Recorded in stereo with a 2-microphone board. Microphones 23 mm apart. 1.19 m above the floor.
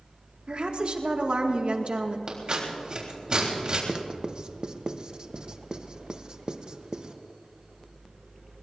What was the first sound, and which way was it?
A woman speaking, 55° right (ahead or behind).